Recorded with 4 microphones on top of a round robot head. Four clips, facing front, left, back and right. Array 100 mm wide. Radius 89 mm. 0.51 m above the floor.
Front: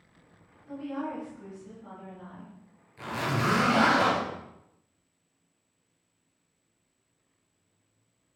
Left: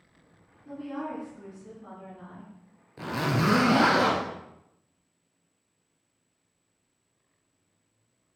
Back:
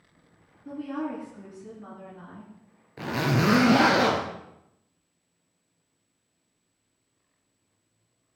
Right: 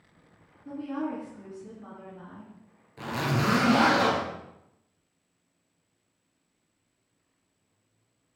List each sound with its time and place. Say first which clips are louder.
0.7 s a woman speaking: right 3 dB, back 2 dB; 175° right, 7 m
3.0 s a zipper: left 1 dB, back 4 dB; 160° left, 2.5 m